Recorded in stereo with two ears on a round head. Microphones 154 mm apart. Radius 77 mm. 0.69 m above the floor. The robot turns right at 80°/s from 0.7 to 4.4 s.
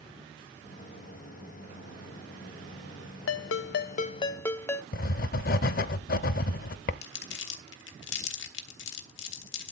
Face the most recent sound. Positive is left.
turn(degrees=70)  # may be behind; listen again after turning